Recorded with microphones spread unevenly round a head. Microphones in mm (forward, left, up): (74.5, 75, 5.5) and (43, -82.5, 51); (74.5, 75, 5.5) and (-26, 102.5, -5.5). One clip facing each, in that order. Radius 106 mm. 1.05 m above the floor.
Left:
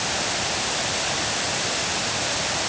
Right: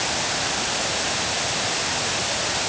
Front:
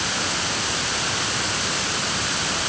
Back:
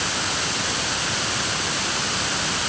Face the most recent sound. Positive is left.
No sound to turn to.